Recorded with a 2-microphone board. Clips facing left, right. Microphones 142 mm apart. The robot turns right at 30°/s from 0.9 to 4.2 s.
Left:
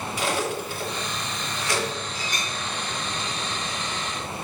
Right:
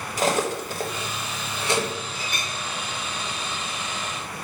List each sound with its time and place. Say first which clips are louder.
0.2 s cutlery clinking: right 4 dB; 40° right (ahead or behind), 1.1 m; by 1.9 s 20° right (ahead or behind), 1.1 m
2.1 s a clink: left 1 dB; 35° left (ahead or behind), 3 m; by 2.5 s 45° left (ahead or behind), 3 m